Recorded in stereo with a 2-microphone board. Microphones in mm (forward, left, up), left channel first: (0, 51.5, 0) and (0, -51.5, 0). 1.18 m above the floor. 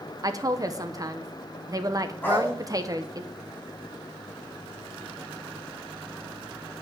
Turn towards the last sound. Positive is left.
turn(degrees=20)  # may be behind; listen again after turning